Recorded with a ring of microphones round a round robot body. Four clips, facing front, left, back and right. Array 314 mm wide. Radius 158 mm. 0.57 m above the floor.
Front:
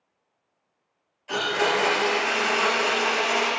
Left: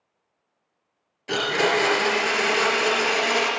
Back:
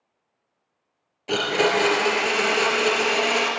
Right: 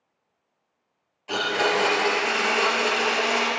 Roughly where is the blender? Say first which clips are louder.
Left 1 dB, back 3 dB; behind left.